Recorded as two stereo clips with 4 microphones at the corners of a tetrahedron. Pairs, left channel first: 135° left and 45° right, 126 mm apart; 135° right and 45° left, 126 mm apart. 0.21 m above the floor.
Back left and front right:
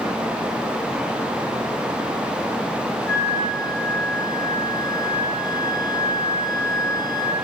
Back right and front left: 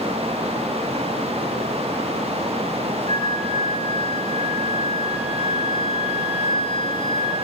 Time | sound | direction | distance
3.1 | a flute | 70° left | 6.5 m